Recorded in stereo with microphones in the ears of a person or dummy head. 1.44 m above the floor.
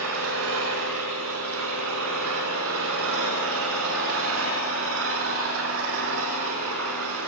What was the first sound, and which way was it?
An engine running, 75° right (ahead or behind).